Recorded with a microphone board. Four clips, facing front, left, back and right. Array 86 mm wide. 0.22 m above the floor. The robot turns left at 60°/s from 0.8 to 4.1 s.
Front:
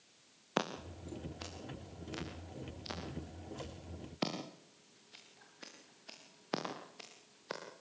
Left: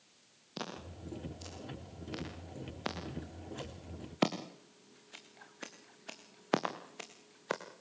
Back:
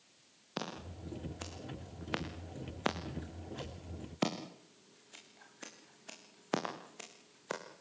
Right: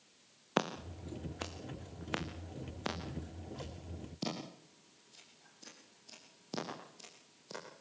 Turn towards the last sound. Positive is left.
turn(degrees=100)